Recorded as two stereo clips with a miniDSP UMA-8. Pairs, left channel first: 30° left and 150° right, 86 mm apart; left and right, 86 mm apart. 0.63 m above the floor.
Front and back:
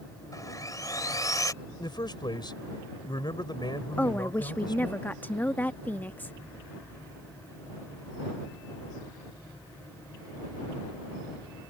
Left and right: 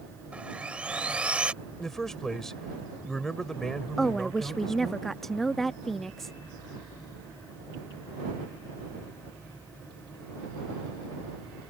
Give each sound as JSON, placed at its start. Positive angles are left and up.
{"t": 0.3, "sound": "sawing", "azimuth_deg": -15}
{"t": 1.8, "sound": "a man speaking", "azimuth_deg": 5}
{"t": 4.0, "sound": "a woman speaking", "azimuth_deg": 10}